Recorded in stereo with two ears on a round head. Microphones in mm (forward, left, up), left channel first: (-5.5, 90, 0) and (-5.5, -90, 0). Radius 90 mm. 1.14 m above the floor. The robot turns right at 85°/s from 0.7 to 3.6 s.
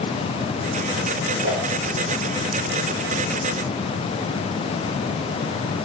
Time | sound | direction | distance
1.4 | a whoosh | 75° right (ahead or behind) | 3.5 m